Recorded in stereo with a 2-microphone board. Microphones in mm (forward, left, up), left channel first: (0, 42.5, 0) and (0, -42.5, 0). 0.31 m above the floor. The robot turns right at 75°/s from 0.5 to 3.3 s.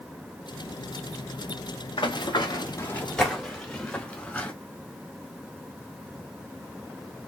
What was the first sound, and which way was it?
Running footsteps, 75° left (ahead or behind).